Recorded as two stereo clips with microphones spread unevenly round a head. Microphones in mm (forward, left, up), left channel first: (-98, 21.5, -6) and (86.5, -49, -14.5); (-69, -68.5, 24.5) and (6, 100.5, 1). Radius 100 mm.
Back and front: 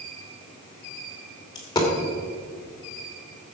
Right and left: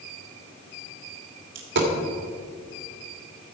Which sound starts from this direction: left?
A dropped coin, at 1.6 s.